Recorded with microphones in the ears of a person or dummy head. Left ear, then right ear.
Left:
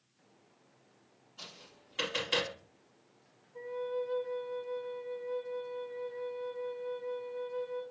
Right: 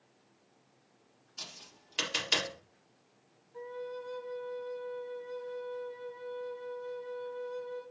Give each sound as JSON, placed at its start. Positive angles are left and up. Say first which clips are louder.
{"t": 1.4, "sound": "tapping", "louder": "right 4 dB", "side_deg": -50, "distance_m": 4.0}
{"t": 3.5, "sound": "a flute", "louder": "left 5 dB", "side_deg": -75, "distance_m": 5.5}